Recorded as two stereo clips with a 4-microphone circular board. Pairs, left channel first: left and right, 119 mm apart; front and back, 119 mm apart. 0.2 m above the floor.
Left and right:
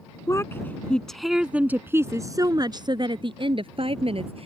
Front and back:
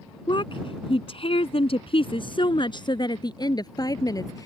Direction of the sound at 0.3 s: 35° left.